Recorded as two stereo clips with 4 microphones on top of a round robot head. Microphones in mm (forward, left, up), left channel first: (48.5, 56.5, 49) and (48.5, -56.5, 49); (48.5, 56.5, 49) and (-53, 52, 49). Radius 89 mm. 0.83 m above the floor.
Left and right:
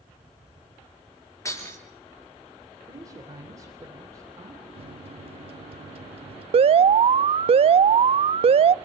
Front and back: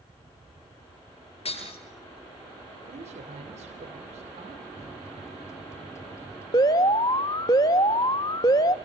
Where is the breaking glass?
25° left, 8 m.